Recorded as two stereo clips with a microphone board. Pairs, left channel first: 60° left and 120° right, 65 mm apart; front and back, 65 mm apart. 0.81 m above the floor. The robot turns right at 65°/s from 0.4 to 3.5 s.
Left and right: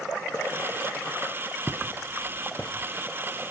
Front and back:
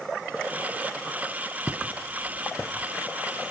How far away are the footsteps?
About 1.8 m.